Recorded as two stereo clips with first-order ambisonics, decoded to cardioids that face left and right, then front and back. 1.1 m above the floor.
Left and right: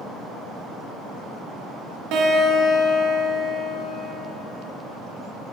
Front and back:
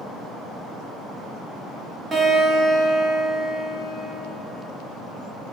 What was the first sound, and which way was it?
A guitar, 110° right.